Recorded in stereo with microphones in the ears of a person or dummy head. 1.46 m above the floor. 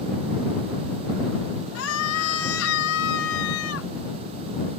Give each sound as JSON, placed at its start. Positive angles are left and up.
{"t": 1.8, "sound": "a scream", "side_deg": 80}